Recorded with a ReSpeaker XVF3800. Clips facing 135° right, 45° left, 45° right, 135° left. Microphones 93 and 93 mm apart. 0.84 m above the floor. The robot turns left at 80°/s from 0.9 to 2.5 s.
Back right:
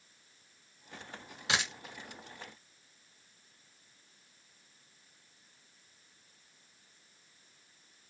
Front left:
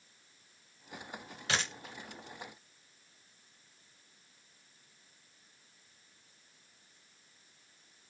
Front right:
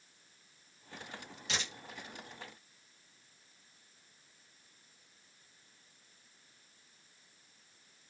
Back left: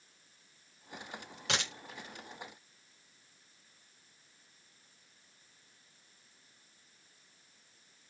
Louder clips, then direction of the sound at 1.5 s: Back right 1 dB, back left 4 dB; 155° left.